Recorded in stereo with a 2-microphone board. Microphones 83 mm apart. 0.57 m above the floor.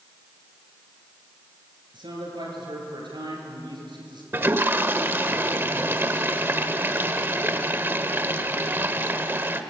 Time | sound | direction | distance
1.9 | a man speaking | 80° right | 8 m
4.3 | a toilet flushing | 30° right (ahead or behind) | 1.1 m